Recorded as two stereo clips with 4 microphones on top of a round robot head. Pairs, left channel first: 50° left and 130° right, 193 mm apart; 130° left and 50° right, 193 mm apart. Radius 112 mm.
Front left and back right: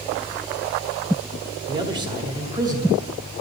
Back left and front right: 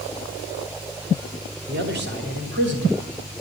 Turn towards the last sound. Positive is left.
turn(degrees=-55)